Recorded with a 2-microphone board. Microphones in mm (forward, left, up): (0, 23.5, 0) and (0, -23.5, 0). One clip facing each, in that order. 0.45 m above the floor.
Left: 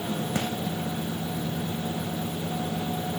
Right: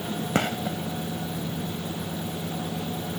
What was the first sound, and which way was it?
A gunshot, 60° right (ahead or behind).